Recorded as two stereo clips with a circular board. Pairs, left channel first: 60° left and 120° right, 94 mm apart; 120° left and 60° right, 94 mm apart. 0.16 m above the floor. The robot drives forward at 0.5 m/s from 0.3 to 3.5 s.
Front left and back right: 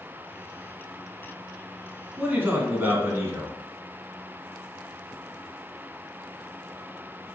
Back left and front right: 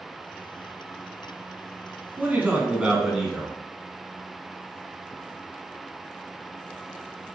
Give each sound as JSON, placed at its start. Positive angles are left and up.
{"t": 2.2, "sound": "a man speaking", "azimuth_deg": -85, "distance_m": 1.2}